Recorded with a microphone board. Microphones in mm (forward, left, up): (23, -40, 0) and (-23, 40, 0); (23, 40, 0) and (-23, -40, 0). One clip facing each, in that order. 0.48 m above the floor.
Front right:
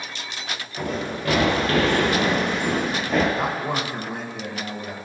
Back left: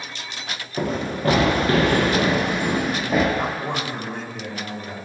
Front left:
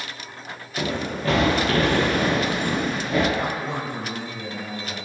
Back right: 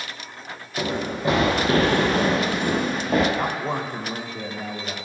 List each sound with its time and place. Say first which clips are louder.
0.8 s running footsteps: back left 4 dB, back right 1 dB; 160° left, 3.5 m; by 3.2 s 155° right, 5 m
3.3 s a man speaking: even, back right 1 dB; 140° right, 2 m